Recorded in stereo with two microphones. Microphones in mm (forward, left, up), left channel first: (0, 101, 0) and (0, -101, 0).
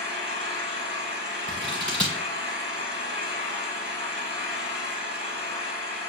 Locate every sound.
0.0 s an engine running: 30° left (ahead or behind), 2 m
1.5 s scissors: 5° left (ahead or behind), 2.0 m